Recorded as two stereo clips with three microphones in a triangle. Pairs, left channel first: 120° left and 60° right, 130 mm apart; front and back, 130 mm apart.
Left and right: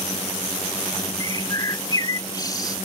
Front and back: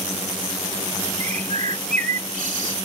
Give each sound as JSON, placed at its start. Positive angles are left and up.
{"t": 1.2, "sound": "a bird", "azimuth_deg": 180}